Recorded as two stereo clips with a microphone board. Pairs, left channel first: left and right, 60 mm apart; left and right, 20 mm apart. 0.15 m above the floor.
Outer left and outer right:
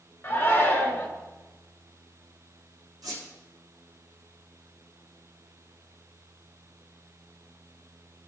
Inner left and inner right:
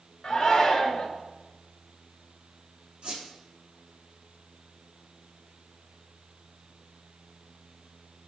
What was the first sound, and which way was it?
A shout, 30° left (ahead or behind).